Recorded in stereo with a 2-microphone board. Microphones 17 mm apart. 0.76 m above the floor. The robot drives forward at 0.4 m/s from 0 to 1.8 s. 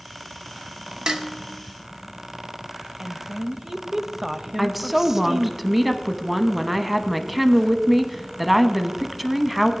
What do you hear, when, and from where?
1.1 s dishes clattering: 50° right (ahead or behind), 0.8 m; by 1.3 s 45° right (ahead or behind), 0.9 m
3.0 s a woman speaking: 25° right (ahead or behind), 0.6 m
4.6 s a woman speaking: 10° right (ahead or behind), 0.7 m